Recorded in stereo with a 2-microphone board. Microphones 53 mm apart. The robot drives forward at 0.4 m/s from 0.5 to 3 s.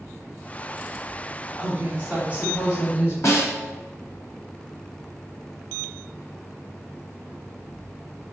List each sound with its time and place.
1.6 s a woman speaking: 25° right (ahead or behind), 1.4 m; by 3.1 s 20° right (ahead or behind), 1.7 m
3.2 s a snare drum: 65° left (ahead or behind), 0.8 m